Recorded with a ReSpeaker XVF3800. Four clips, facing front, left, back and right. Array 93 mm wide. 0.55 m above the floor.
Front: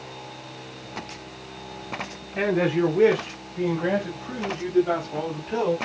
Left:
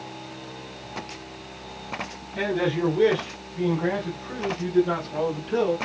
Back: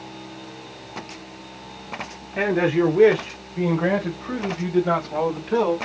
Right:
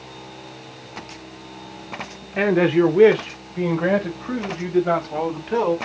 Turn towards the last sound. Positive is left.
turn(degrees=-120)